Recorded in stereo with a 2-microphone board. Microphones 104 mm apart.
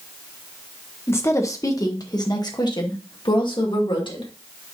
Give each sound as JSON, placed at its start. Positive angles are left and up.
{"t": 1.1, "sound": "a woman speaking", "side_deg": 25, "distance_m": 1.3}